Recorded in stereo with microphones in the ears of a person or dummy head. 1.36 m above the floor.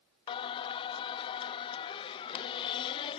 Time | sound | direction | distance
0.3 | singing | 25° left (ahead or behind) | ?